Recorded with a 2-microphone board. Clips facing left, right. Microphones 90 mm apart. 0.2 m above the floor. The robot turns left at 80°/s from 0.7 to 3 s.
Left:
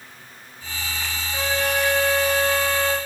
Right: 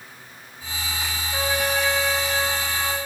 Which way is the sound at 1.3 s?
145° right.